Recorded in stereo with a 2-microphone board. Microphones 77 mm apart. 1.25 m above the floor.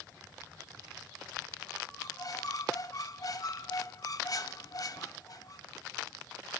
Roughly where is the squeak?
Left.